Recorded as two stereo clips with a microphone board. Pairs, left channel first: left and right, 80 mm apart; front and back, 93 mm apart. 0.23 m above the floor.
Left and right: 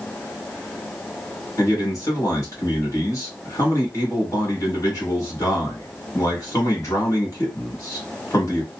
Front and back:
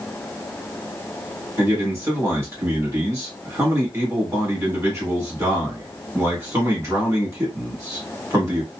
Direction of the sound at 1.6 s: 125° left.